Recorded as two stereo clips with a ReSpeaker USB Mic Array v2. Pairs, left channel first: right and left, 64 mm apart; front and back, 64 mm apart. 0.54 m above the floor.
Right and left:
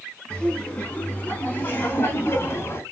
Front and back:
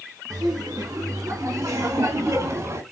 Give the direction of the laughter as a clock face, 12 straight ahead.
5 o'clock.